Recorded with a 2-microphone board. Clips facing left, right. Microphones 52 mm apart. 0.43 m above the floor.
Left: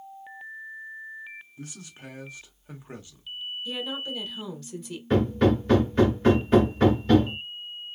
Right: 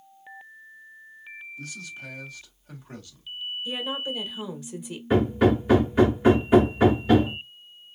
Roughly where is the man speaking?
Left.